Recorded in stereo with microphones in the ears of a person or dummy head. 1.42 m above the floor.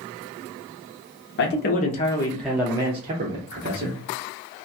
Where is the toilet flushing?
I don't hear a toilet flushing.